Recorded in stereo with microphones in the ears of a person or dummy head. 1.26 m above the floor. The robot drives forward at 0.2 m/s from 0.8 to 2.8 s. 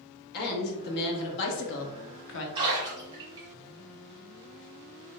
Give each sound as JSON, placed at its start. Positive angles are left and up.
{"t": 0.3, "sound": "a woman speaking", "side_deg": 50, "distance_m": 0.8}
{"t": 2.5, "sound": "a splash", "side_deg": -20, "distance_m": 1.1}